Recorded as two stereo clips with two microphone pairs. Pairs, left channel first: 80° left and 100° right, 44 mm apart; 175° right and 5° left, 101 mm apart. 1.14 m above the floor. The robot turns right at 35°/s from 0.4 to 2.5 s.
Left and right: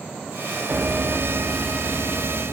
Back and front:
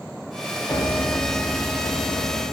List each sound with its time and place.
0.7 s a piano: 125° right, 0.8 m; by 2.5 s 65° right, 0.8 m